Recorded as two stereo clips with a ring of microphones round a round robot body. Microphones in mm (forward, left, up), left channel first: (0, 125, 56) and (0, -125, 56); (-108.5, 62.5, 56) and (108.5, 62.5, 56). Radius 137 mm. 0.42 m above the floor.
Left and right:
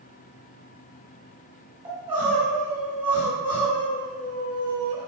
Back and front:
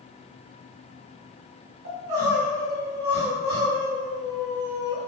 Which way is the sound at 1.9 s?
20° right.